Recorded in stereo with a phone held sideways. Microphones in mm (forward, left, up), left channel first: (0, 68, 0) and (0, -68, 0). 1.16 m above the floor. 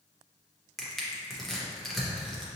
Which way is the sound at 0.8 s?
Centre (ahead or behind).